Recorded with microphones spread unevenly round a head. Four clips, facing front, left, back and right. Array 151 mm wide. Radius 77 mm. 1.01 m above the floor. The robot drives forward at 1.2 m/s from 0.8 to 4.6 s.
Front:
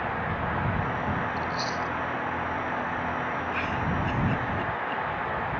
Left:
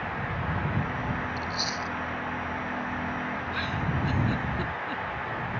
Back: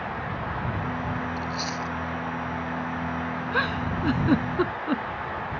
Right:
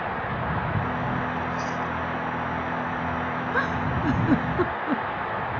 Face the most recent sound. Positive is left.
turn(degrees=-140)